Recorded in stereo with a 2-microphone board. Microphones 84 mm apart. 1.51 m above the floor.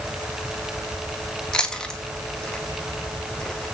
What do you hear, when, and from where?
1.5 s chewing: 10° left (ahead or behind), 1.4 m